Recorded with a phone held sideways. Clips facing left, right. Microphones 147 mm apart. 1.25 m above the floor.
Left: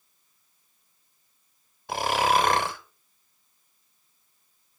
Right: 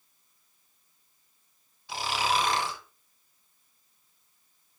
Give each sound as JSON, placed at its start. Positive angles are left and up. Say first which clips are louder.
{"t": 1.9, "sound": "snoring", "louder": "left 6 dB", "side_deg": 55, "distance_m": 1.0}